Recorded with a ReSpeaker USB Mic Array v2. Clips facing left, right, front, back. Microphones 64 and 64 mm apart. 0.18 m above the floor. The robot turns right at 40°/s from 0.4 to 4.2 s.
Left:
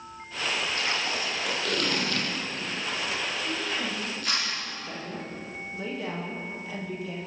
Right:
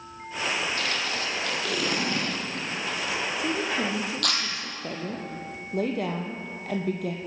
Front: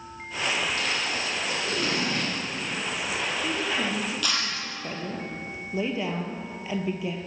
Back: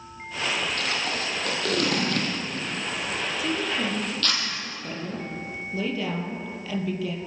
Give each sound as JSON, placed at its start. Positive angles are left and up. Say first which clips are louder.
{"t": 0.8, "sound": "tape being pulled", "louder": "even, even", "azimuth_deg": 145, "distance_m": 6.5}
{"t": 3.4, "sound": "a woman speaking", "louder": "right 4 dB, back 2 dB", "azimuth_deg": -100, "distance_m": 5.0}